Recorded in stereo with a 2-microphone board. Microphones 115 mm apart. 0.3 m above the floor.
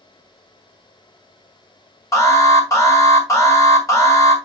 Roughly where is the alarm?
Left.